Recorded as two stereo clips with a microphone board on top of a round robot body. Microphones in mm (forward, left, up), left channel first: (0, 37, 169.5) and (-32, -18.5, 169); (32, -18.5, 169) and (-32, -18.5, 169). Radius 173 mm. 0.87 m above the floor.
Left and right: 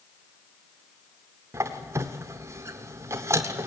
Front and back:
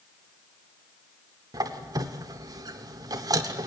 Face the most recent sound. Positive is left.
turn(degrees=-165)